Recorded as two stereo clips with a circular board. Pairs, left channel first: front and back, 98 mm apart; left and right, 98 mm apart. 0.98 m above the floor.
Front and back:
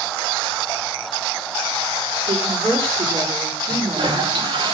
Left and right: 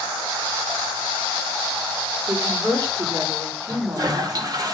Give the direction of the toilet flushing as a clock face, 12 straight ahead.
5 o'clock.